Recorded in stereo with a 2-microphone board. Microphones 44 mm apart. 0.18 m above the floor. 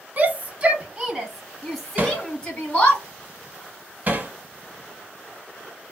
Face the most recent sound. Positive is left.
turn(degrees=-35)  # may be behind; listen again after turning